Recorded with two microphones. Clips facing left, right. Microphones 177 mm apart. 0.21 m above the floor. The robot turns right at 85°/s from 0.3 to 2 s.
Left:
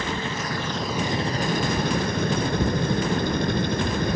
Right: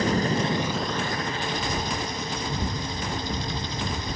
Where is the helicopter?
45° right; by 4.2 s 100° left.